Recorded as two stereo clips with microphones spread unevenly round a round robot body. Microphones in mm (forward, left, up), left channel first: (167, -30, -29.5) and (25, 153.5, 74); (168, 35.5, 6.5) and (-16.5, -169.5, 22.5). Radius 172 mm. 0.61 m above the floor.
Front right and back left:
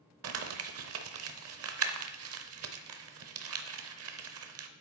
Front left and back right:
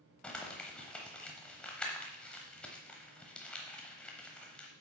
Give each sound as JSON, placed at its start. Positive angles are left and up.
{"t": 0.2, "sound": "crumpling", "azimuth_deg": 135, "distance_m": 0.8}